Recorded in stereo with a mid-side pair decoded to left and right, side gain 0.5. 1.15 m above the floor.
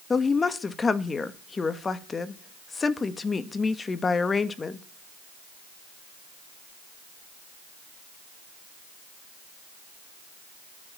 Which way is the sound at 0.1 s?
30° left.